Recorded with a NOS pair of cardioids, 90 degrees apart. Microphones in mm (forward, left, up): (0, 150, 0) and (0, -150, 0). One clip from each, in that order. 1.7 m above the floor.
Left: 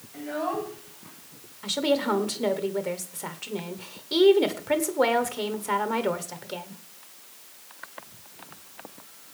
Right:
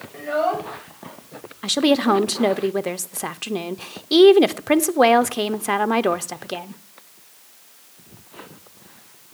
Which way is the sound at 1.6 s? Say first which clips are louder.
Right 6 dB; 45° right.